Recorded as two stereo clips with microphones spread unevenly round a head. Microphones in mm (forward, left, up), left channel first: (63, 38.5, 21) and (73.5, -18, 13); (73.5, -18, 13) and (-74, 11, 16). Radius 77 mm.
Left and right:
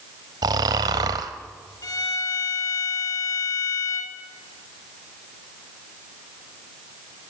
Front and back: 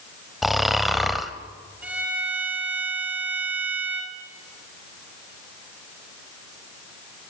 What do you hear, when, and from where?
0.4 s snoring: 100° right, 1.2 m
1.8 s a violin: 90° left, 3.5 m